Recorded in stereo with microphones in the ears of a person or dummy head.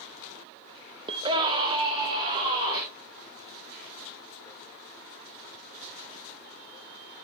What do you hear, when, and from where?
1.1 s a scream: 25° right (ahead or behind), 0.9 m